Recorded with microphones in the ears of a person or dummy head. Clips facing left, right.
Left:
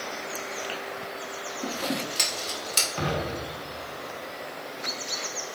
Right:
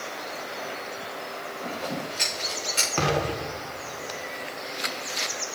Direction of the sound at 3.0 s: 70° right (ahead or behind).